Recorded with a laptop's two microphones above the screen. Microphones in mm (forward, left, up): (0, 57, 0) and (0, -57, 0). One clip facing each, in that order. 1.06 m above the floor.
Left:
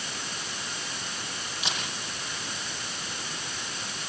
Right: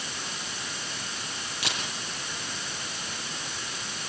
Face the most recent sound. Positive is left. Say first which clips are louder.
# even
turn(degrees=-75)  # may be behind; listen again after turning